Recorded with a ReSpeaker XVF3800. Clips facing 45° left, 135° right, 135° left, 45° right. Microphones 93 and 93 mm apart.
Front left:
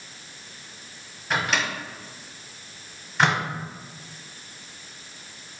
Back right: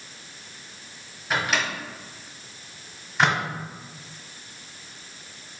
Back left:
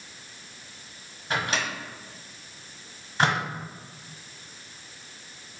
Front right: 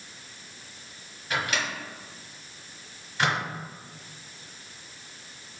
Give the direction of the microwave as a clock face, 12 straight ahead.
7 o'clock.